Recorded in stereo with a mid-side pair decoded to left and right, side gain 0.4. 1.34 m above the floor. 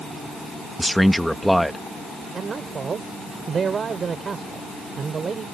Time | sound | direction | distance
0.8 | a man speaking | straight ahead | ?
2.3 | a man speaking | 45° right | ?